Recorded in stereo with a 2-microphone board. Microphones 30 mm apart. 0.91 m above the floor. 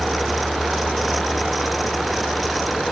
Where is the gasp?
No gasp in this recording.